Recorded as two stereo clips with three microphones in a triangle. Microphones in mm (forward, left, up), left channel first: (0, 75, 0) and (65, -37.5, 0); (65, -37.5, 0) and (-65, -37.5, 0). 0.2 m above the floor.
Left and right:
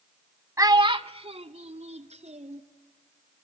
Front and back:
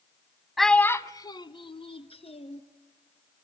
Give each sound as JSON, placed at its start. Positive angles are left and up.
{"t": 0.6, "sound": "a child speaking", "azimuth_deg": -90, "distance_m": 0.6}